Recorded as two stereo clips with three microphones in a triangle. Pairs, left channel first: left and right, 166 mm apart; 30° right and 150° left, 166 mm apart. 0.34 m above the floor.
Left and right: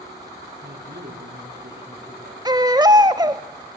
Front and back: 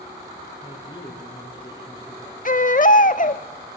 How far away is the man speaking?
About 5.5 m.